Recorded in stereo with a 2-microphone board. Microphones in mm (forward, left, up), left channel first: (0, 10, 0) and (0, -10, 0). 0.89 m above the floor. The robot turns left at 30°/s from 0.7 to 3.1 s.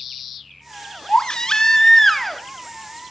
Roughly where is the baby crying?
Ahead left.